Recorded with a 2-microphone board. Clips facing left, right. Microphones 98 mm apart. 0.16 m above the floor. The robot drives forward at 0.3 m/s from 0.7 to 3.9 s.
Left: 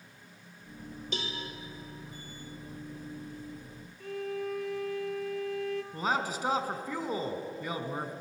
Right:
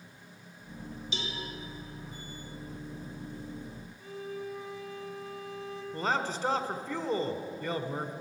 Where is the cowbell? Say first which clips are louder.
Left 2 dB; 50° left (ahead or behind), 2.5 m.